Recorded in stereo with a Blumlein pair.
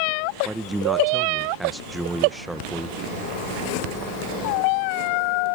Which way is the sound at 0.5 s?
5° right.